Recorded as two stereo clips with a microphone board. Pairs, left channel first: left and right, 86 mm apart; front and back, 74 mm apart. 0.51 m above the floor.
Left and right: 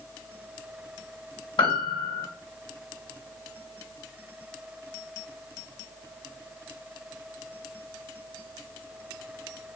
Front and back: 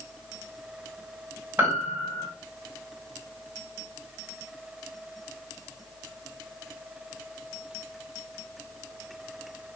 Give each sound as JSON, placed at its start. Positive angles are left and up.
{"t": 1.6, "sound": "a piano", "azimuth_deg": 115, "distance_m": 1.5}